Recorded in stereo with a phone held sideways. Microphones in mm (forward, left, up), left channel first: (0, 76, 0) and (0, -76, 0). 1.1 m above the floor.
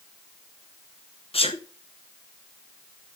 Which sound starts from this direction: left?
A sneeze, at 1.3 s.